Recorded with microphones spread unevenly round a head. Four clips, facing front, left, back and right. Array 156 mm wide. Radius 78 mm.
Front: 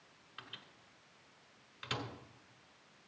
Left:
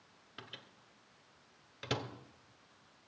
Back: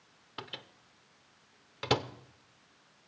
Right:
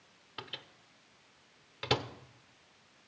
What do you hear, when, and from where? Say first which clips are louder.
0.4 s a microwave: right 6 dB, back 9 dB; 165° right, 0.8 m